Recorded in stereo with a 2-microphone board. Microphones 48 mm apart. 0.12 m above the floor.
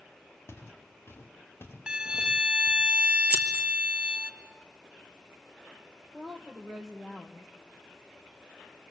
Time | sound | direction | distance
0.5 | footsteps | 65° left (ahead or behind) | 3.5 m
1.9 | a violin | 20° right (ahead or behind) | 1.0 m
3.3 | scissors | 25° right (ahead or behind) | 2.5 m
6.1 | a woman speaking | 5° left (ahead or behind) | 3.5 m